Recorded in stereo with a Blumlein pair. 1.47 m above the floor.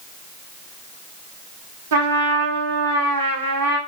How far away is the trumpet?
About 0.7 m.